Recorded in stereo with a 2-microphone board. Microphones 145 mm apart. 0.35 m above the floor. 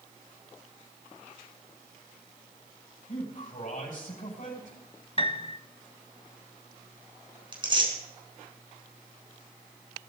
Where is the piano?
40° left (ahead or behind), 1.0 m.